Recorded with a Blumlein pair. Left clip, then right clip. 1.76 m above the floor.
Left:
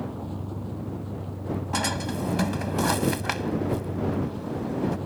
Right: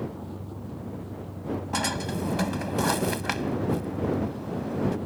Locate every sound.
0.0 s a vehicle: 15° left
1.7 s a drawer: straight ahead